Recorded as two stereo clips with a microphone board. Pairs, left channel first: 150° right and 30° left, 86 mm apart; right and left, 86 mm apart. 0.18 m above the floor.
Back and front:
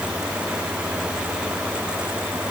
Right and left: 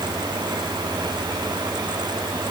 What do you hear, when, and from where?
Only background noise.